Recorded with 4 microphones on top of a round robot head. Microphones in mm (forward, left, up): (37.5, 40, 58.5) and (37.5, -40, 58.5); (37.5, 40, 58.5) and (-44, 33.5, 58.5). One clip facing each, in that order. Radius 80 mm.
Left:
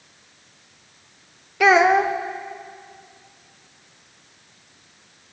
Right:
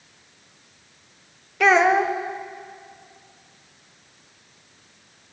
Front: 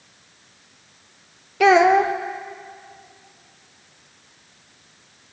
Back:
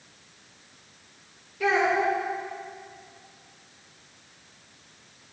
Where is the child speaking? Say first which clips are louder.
Left 2 dB, front 9 dB; 5° left, 0.6 m.